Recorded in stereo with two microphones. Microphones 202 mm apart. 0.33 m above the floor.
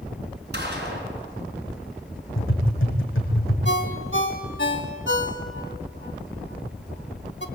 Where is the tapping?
85° left, 5 m.